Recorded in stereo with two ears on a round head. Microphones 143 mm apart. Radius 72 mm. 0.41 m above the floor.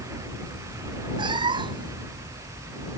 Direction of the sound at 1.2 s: 30° right (ahead or behind).